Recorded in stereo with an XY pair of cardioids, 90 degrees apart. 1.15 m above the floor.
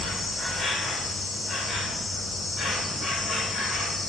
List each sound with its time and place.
0.0 s an insect: 55° left, 2 m